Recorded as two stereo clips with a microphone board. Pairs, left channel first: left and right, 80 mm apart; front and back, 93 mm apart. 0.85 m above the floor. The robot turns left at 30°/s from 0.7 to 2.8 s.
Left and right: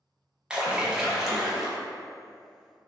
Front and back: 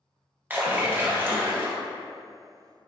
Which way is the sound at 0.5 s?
150° right.